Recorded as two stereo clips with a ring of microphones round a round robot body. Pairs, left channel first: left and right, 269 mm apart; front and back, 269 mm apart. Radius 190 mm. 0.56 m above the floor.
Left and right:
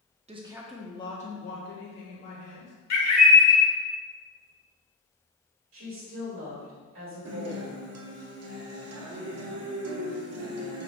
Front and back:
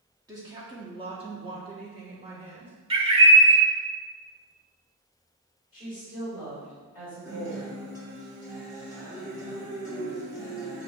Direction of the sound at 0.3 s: 120° right.